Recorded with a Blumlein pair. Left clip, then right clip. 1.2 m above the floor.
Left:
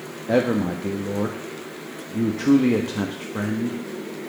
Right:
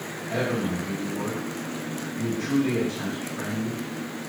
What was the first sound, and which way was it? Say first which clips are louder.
A man speaking: left 7 dB; 45° left.